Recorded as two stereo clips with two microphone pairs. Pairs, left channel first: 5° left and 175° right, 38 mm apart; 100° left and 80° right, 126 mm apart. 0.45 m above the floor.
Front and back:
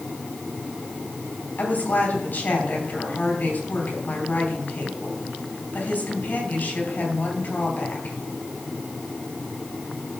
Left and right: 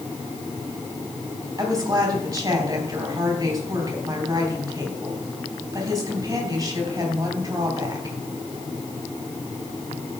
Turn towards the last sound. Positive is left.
turn(degrees=-20)